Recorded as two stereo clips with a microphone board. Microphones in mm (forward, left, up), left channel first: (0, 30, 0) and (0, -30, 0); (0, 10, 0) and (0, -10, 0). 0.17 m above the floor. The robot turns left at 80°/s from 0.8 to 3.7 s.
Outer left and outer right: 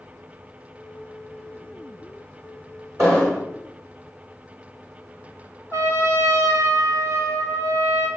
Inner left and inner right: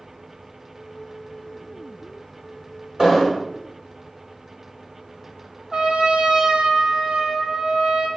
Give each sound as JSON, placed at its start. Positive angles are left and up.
{"t": 3.0, "sound": "an explosion", "azimuth_deg": -130, "distance_m": 3.5}
{"t": 5.7, "sound": "a trumpet", "side_deg": -50, "distance_m": 2.0}